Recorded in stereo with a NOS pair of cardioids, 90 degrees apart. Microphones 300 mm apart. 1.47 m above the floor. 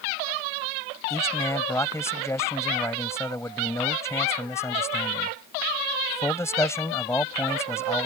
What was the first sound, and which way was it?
A man speaking, 10° left.